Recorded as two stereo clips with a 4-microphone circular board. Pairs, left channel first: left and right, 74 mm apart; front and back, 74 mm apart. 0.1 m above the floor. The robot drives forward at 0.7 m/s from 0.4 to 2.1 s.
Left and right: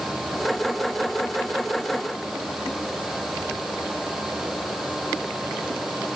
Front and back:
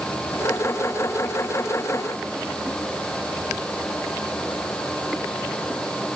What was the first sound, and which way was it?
Only background noise.